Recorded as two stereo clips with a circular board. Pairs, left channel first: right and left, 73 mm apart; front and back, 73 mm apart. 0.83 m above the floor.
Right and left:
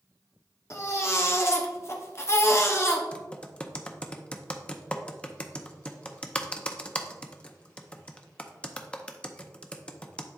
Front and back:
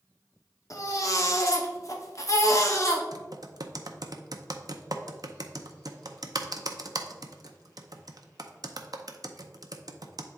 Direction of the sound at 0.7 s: 40° right.